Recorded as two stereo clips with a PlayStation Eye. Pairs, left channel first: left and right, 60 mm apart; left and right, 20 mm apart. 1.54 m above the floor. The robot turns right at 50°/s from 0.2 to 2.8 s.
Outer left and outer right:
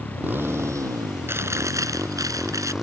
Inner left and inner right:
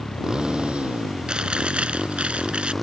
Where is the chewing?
135° right; by 2.7 s 65° right.